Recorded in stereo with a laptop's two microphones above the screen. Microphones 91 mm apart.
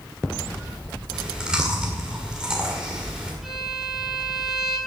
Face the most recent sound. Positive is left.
turn(degrees=-5)  # may be behind; listen again after turning